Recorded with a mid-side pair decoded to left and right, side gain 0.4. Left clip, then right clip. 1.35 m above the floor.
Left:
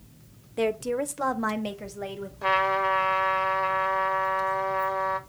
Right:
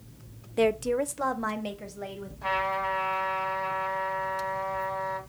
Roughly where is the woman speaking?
Ahead.